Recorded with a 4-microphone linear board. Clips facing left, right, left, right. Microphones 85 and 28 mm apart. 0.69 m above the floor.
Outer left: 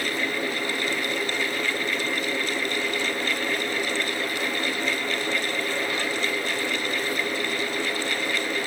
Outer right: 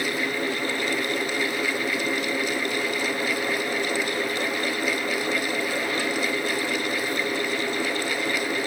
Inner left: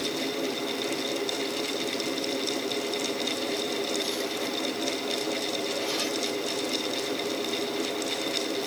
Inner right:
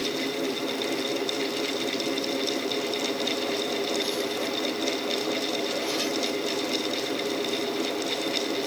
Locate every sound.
Only background noise.